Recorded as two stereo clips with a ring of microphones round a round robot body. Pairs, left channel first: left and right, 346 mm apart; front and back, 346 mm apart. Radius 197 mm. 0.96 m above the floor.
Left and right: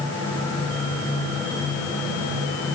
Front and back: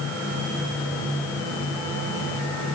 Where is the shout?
I don't hear a shout.